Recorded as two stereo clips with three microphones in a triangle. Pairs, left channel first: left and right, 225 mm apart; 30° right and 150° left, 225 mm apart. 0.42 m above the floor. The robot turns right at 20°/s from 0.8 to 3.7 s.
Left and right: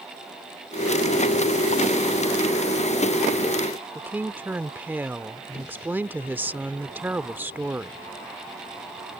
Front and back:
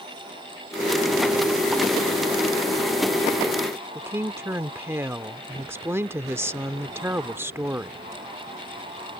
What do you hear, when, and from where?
4.0 s a woman speaking: 155° right